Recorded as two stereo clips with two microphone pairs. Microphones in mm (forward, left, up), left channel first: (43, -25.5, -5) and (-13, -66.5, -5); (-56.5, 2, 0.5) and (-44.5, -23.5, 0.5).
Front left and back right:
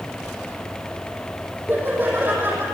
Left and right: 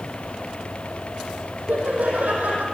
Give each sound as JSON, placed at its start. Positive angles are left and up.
{"t": 1.7, "sound": "laughter", "azimuth_deg": -85, "distance_m": 5.5}